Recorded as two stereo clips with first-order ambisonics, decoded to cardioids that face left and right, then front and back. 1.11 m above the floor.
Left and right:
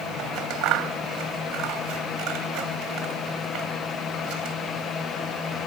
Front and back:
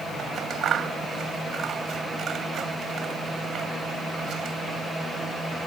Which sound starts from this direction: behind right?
Scissors, at 0.2 s.